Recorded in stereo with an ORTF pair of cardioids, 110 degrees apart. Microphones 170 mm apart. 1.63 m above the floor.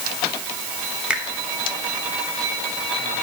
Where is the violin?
No violin in this recording.